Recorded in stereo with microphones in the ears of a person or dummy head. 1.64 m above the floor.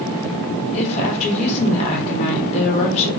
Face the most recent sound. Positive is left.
turn(degrees=35)  # may be behind; listen again after turning